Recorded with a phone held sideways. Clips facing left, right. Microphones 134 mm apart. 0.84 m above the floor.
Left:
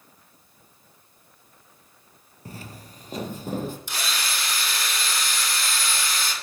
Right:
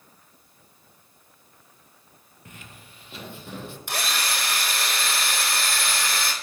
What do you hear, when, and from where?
2.5 s footsteps: 35° left (ahead or behind), 1.2 m; by 3.8 s 40° left (ahead or behind), 2 m
3.9 s a drill: 60° right (ahead or behind), 3.5 m